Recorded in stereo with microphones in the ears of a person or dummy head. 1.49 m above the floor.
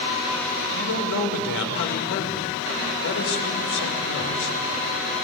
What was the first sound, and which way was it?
A man speaking, 70° left (ahead or behind).